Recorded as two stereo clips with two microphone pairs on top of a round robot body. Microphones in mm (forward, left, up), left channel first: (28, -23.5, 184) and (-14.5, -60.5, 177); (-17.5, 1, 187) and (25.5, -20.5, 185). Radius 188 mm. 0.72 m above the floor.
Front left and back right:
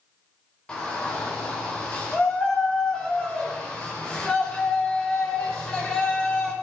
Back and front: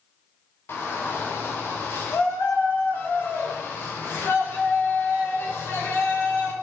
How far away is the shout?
About 3.5 m.